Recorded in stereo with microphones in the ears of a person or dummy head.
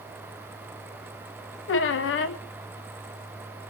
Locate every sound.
1.7 s a squeak: 60° left (ahead or behind), 1.1 m